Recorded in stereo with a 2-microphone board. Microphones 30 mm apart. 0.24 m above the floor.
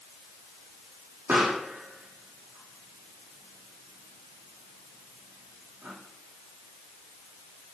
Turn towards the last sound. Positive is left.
turn(degrees=-80)